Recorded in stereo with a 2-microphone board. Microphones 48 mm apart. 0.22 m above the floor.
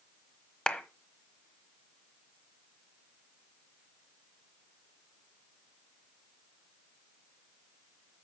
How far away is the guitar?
No guitar in this recording.